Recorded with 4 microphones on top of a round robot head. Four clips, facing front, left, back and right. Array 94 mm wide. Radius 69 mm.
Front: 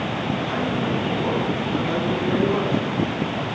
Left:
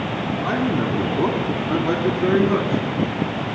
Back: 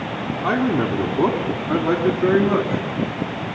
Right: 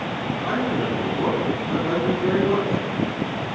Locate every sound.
0.4 s a man speaking: 165° left, 5 m; by 2.8 s 150° left, 6.5 m